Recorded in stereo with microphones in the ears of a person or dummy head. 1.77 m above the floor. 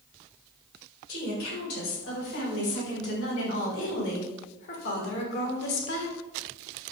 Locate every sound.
1.1 s a woman speaking: 70° left (ahead or behind), 5.5 m